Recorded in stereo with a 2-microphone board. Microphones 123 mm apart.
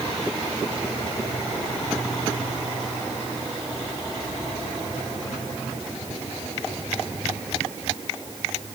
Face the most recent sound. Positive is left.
No sound to turn to.